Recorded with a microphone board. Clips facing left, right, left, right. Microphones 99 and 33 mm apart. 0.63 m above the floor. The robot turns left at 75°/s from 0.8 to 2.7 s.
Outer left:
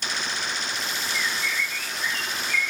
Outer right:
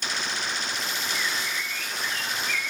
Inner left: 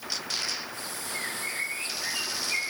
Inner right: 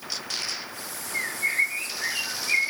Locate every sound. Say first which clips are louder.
1.1 s a bird: outer left 4 dB, inner right 9 dB; 5° right, 2.5 m; by 2.7 s 120° right, 2.5 m